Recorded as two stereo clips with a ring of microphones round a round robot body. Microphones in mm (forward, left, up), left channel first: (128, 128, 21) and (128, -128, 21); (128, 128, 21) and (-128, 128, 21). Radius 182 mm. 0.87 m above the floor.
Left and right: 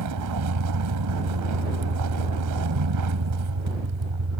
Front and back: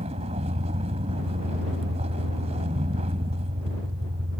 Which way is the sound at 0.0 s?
105° right.